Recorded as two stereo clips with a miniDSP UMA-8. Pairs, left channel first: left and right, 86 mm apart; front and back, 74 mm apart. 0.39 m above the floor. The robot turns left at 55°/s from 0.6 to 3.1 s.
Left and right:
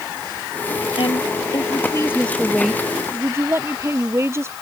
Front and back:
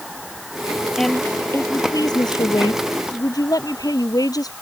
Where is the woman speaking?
85° left; by 4.5 s 30° right.